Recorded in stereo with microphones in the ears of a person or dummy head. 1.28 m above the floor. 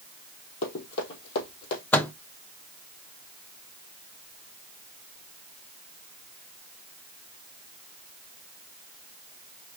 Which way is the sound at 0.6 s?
60° left (ahead or behind).